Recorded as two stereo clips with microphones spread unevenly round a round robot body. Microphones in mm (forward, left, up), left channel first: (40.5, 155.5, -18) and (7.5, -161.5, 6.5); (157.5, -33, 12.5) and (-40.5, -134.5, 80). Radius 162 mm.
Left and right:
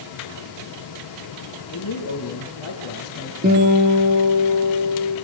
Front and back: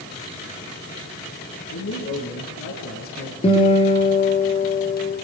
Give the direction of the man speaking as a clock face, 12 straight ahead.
11 o'clock.